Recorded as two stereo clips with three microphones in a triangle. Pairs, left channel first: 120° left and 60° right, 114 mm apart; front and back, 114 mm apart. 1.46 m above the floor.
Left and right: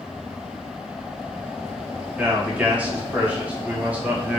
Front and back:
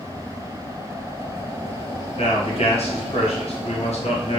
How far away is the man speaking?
About 1.0 m.